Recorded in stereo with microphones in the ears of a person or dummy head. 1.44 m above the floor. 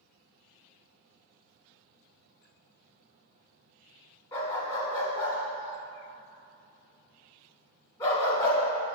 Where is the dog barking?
25° left (ahead or behind), 1.3 m.